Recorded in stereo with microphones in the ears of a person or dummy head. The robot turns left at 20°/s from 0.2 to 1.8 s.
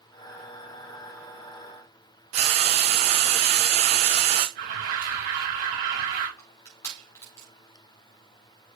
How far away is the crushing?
About 4 m.